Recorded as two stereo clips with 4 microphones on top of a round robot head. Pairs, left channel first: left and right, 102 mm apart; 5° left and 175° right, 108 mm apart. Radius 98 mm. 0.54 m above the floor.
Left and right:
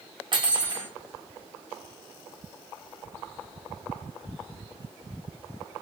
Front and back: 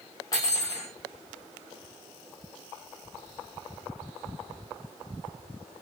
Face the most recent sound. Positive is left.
turn(degrees=-50)